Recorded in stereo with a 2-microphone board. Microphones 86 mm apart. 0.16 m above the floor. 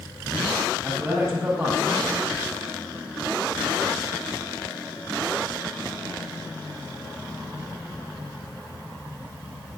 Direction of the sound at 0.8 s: 35° right (ahead or behind).